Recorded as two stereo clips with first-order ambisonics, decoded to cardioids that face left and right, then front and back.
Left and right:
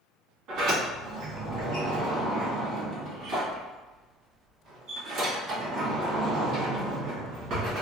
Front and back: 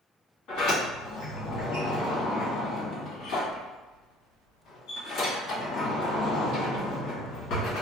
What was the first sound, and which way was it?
A sliding door, 45° right.